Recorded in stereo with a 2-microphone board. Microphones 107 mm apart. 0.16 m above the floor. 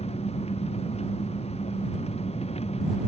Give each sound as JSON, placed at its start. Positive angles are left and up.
{"t": 0.0, "sound": "an engine running", "side_deg": 70}